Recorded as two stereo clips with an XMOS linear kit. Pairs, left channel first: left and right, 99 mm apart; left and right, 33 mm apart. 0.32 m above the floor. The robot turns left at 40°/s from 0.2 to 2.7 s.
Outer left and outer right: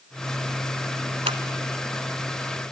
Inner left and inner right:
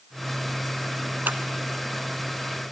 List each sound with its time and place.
1.3 s scissors: 75° right (ahead or behind), 0.9 m; by 1.4 s 80° right, 0.9 m